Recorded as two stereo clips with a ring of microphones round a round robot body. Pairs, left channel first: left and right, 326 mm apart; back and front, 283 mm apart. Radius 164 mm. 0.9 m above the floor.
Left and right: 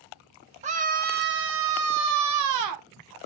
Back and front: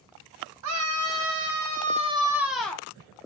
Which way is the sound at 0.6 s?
20° right.